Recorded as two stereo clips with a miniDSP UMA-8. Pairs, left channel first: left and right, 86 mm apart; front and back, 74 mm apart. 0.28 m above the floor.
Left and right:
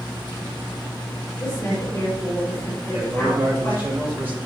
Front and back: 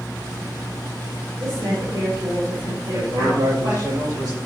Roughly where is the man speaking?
Behind right.